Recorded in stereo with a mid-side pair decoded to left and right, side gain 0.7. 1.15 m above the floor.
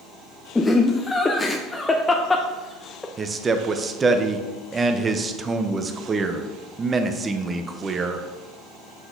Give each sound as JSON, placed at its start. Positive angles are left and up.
{"t": 0.6, "sound": "laughter", "azimuth_deg": 15, "distance_m": 0.6}
{"t": 3.2, "sound": "a man speaking", "azimuth_deg": -25, "distance_m": 0.7}